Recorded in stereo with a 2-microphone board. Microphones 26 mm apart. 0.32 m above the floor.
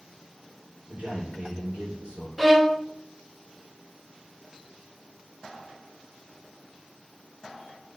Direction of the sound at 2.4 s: 5° right (ahead or behind).